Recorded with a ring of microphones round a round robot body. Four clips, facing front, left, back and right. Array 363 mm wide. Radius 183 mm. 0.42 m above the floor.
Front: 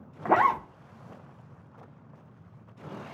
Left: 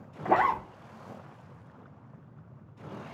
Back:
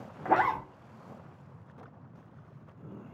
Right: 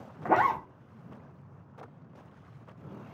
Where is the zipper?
25° right, 0.9 m.